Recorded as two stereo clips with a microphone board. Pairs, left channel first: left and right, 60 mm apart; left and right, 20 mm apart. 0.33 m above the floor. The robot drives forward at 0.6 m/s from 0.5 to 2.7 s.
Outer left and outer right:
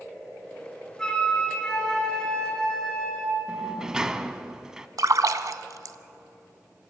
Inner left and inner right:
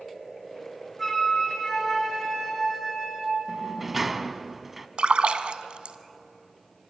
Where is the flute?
10° left (ahead or behind), 3.5 m.